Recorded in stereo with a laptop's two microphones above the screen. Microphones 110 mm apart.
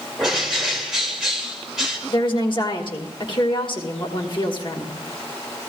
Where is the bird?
5° right (ahead or behind), 2 m.